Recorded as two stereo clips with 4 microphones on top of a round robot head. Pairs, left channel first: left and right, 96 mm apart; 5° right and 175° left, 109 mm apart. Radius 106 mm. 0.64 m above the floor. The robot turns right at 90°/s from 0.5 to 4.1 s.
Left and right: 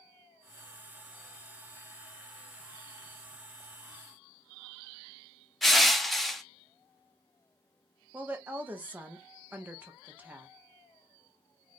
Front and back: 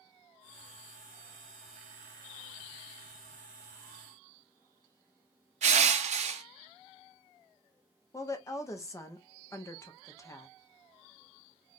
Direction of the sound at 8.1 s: 35° right.